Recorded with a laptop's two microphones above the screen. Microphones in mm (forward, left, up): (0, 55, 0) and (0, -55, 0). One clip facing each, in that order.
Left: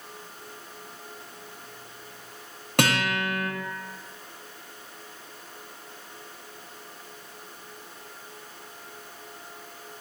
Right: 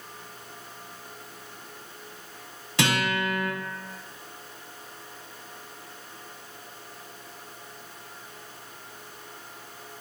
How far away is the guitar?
About 5.5 m.